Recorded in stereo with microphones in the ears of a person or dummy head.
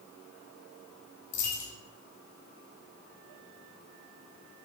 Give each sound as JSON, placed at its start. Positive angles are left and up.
{"t": 1.3, "sound": "a dropped coin", "side_deg": 40, "distance_m": 0.7}